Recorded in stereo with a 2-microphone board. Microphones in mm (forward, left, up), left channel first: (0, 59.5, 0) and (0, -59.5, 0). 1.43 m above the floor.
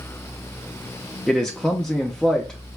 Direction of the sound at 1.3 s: 5° left (ahead or behind).